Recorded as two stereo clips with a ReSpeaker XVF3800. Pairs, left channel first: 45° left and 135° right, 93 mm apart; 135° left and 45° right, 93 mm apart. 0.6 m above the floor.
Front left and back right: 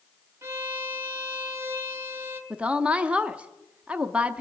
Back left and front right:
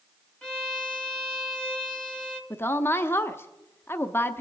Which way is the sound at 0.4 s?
155° right.